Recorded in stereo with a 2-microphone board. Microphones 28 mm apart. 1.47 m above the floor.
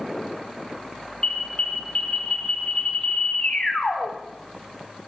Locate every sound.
1.2 s an alarm: 40° left (ahead or behind), 6 m